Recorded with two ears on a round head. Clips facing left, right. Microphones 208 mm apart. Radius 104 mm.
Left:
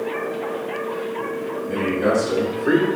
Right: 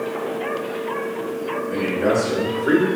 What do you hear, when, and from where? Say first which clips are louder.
1.7 s a man speaking: even; 25° left (ahead or behind), 2 m; by 2.9 s 10° left (ahead or behind), 1.4 m